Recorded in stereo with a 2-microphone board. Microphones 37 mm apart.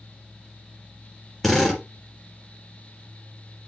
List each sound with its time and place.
1.4 s a drill: 5° left (ahead or behind), 4 m